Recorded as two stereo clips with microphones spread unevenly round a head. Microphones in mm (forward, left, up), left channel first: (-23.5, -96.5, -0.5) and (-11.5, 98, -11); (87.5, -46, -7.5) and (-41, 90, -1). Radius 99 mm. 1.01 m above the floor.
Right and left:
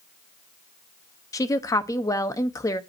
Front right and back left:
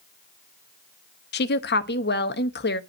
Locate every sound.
1.3 s a woman speaking: 20° right, 1.1 m